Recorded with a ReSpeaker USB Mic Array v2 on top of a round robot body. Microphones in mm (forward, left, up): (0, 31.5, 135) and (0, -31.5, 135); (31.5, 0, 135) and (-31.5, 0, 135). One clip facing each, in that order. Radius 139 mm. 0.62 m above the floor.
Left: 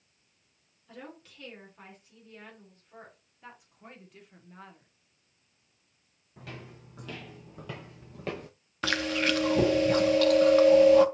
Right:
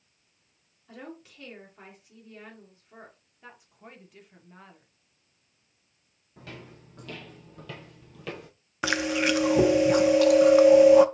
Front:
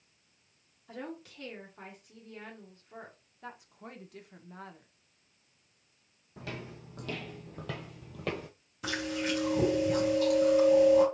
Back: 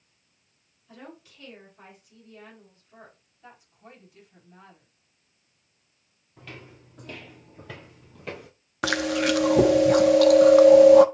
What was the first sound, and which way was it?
A woman speaking, 15° right.